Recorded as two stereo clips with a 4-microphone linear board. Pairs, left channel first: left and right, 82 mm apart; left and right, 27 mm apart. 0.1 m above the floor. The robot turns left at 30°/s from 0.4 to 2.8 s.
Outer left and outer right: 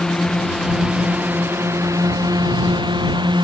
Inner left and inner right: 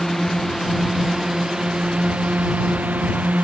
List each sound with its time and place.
0.0 s a drone: 5° left (ahead or behind); by 3.5 s 65° right (ahead or behind)